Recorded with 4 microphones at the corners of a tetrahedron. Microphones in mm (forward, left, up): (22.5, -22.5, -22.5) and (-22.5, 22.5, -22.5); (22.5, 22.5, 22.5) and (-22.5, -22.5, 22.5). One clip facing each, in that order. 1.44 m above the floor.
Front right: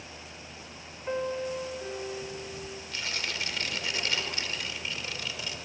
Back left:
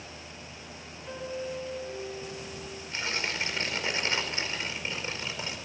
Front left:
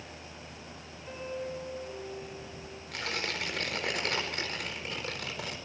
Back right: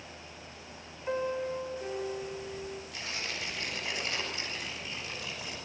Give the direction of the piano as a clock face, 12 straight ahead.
3 o'clock.